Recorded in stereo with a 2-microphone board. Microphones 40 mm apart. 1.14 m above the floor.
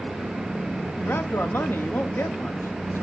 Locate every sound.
1.0 s a man speaking: 70° left (ahead or behind), 1.2 m